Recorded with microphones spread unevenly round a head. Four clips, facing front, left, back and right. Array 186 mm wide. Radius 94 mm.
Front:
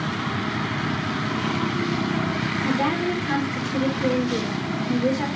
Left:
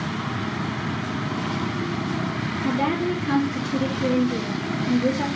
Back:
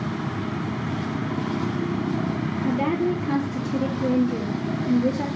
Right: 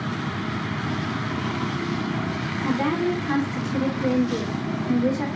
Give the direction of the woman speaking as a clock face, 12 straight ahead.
8 o'clock.